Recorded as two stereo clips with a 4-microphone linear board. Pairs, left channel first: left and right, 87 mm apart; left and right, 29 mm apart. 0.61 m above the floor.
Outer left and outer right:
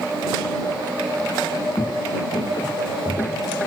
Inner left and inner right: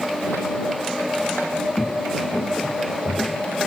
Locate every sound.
1.8 s footsteps: 75° left (ahead or behind); by 3.5 s 50° left (ahead or behind)